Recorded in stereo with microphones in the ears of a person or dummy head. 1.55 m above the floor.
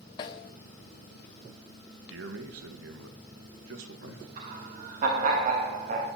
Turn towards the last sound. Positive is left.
turn(degrees=-45)  # may be behind; listen again after turning